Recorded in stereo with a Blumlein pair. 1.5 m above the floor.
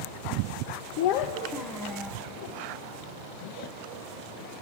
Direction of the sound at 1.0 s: 50° left.